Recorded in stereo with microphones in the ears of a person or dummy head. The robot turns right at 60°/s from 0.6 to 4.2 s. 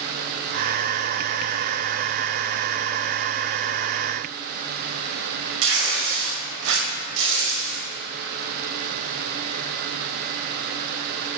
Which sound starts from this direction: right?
Tearing paper, at 5.6 s.